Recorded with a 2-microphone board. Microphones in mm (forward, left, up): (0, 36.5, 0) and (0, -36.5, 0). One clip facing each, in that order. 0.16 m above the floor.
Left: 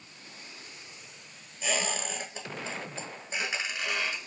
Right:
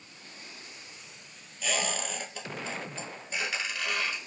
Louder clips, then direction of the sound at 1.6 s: Even; 20° left (ahead or behind).